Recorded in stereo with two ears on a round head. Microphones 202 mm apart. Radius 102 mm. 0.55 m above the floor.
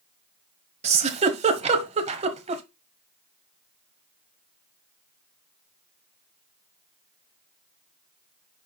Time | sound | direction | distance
0.8 | a giggle | 30° right (ahead or behind) | 1.1 m